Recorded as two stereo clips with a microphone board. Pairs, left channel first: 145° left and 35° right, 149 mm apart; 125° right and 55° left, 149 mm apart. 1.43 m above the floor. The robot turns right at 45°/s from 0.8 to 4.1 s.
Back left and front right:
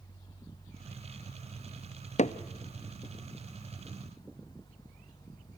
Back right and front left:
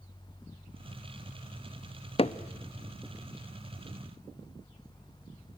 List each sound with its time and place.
2.2 s hammering: 175° right, 0.5 m; by 2.4 s 170° right, 0.5 m